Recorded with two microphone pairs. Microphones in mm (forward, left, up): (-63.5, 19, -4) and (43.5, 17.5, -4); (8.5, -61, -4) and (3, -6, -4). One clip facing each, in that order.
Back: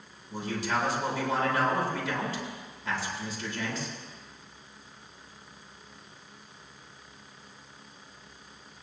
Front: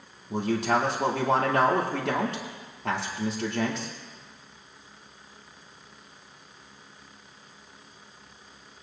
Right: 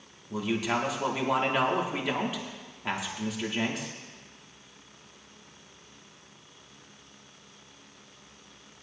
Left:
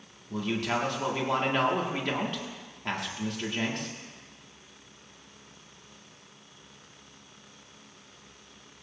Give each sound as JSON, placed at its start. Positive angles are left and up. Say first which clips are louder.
{"t": 0.3, "sound": "a man speaking", "louder": "front 6 dB, right 1 dB", "azimuth_deg": -5, "distance_m": 1.7}